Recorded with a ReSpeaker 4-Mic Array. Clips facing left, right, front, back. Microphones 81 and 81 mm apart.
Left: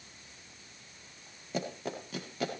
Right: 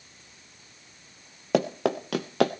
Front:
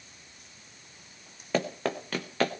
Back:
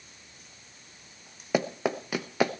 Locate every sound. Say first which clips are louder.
1.5 s running footsteps: right 12 dB, back 2 dB; 100° right, 1.3 m